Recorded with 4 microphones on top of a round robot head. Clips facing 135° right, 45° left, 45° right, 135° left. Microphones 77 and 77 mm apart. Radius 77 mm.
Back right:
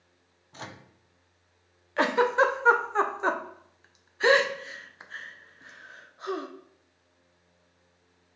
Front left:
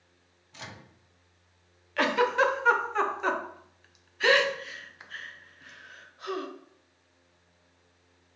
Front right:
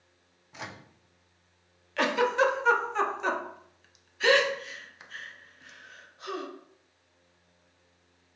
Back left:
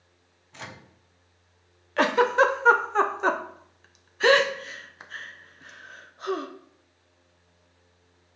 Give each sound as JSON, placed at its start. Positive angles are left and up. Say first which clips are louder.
{"t": 0.5, "sound": "a microwave", "louder": "back right 3 dB, even", "azimuth_deg": -120, "distance_m": 0.5}
{"t": 2.0, "sound": "a giggle", "louder": "back right 2 dB, back left 5 dB", "azimuth_deg": 170, "distance_m": 0.6}